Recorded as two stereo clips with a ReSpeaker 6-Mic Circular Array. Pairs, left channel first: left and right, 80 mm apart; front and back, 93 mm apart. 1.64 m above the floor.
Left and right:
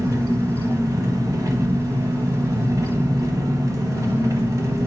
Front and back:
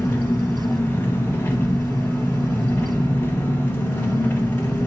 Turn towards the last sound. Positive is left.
turn(degrees=-65)